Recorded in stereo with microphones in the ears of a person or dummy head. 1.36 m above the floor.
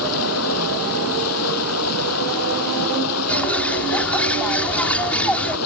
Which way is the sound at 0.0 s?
90° left.